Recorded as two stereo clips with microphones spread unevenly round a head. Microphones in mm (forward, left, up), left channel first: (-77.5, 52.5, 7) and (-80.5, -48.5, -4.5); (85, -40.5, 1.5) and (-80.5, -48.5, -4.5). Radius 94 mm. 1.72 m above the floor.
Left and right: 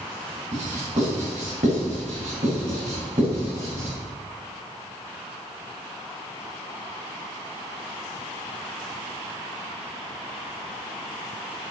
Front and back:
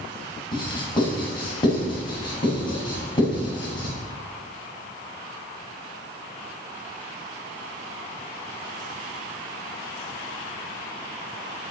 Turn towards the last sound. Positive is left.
turn(degrees=-60)